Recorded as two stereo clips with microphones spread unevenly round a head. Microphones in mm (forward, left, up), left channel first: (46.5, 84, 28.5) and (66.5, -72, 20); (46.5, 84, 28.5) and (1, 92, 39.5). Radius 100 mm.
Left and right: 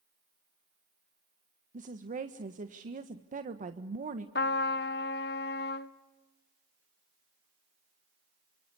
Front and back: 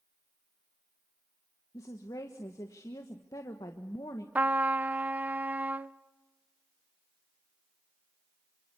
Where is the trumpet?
125° left, 0.8 m.